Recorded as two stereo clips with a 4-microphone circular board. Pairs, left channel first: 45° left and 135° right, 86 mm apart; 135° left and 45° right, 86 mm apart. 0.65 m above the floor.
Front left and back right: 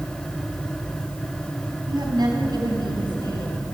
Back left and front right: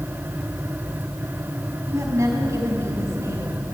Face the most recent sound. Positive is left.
turn(degrees=-100)